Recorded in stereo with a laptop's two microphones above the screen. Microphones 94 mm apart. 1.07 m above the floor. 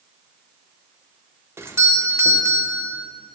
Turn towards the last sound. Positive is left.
turn(degrees=-25)  # may be behind; listen again after turning